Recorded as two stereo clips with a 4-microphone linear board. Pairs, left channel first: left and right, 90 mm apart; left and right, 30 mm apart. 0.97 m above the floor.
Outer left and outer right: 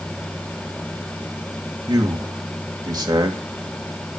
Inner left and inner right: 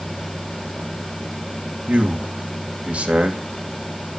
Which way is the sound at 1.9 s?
50° right (ahead or behind).